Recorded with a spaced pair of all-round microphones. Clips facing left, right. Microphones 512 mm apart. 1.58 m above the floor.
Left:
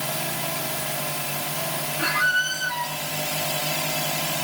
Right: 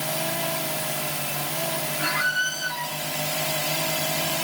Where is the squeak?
75° left (ahead or behind), 3 m.